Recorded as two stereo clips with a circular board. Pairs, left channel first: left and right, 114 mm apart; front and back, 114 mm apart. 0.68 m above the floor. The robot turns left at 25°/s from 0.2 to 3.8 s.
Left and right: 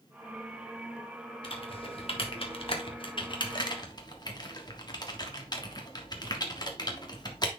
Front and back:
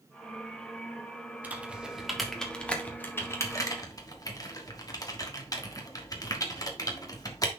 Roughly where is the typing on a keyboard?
Left.